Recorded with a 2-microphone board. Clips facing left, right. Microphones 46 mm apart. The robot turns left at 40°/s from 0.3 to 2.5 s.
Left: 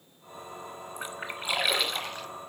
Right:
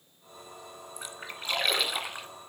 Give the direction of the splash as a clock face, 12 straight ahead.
11 o'clock.